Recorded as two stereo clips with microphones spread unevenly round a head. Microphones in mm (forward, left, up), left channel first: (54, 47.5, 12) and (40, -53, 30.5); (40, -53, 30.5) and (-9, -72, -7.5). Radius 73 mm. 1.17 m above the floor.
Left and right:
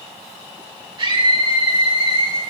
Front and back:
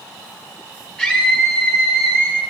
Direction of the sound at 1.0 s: 55° right.